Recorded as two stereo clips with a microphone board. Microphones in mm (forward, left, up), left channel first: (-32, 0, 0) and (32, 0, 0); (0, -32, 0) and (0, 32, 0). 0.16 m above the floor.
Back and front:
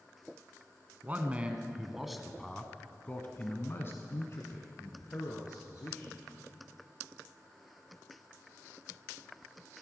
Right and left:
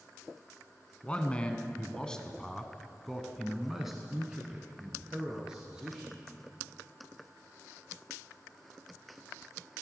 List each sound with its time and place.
1.0 s a man speaking: 35° right, 1.2 m; by 6.2 s 165° left, 2 m